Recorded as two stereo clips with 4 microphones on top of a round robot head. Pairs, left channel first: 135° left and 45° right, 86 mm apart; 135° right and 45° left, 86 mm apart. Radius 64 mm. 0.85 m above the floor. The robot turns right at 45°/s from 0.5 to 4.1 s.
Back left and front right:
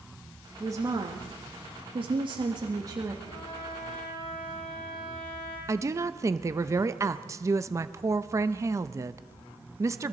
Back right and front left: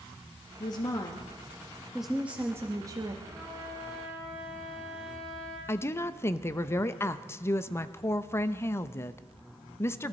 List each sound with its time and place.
0.6 s a woman speaking: 105° right, 1.1 m; by 3.1 s 10° left, 1.1 m
3.2 s a trumpet: 95° left, 9.5 m; by 5.6 s 135° left, 9.5 m
5.7 s a woman speaking: 85° right, 0.7 m